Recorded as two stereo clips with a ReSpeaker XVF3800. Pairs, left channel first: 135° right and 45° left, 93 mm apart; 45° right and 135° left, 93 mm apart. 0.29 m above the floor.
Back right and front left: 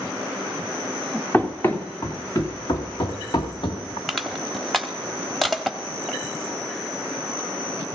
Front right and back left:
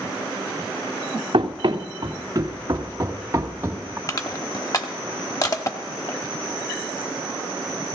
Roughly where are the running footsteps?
Behind left.